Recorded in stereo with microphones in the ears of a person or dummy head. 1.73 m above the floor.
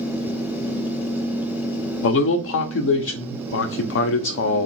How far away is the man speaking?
About 0.6 m.